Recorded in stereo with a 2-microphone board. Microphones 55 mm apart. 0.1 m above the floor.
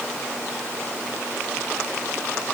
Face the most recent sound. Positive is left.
No sound to turn to.